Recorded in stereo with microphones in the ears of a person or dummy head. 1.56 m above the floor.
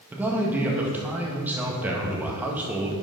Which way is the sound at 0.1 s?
10° right (ahead or behind).